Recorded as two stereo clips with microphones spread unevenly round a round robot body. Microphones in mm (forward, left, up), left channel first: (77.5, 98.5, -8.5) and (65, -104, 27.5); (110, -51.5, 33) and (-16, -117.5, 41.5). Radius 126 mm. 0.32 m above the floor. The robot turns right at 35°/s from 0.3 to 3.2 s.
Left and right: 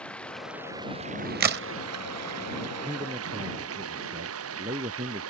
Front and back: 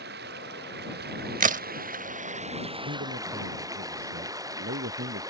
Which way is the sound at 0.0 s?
170° left.